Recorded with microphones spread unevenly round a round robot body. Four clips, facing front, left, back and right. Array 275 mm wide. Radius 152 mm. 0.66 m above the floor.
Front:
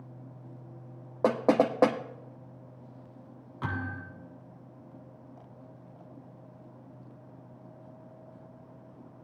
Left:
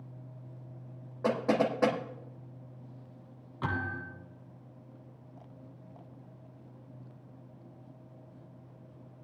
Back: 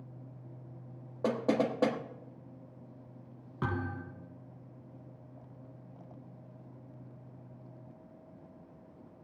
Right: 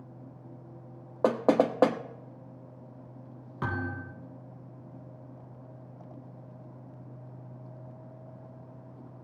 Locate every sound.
1.2 s knocking: 45° right, 1.4 m
3.6 s a thud: 150° right, 4.5 m